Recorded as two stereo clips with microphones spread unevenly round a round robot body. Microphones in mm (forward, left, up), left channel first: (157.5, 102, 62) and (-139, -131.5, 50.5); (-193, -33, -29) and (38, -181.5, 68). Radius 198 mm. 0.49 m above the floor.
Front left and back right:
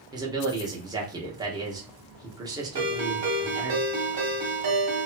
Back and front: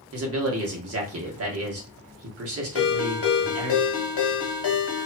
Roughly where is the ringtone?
Behind.